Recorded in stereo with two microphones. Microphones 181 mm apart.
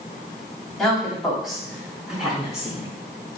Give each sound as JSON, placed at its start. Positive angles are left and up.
{"t": 0.8, "sound": "a woman speaking", "side_deg": 0, "distance_m": 1.6}